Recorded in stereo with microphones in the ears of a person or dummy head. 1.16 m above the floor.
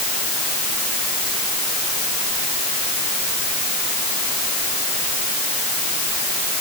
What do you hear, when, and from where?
Only background noise.